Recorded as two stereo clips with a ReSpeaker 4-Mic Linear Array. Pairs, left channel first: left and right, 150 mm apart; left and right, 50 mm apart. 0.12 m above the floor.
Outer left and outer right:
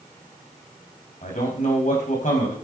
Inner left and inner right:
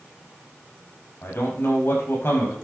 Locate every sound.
1.2 s a man speaking: 55° left (ahead or behind), 6.5 m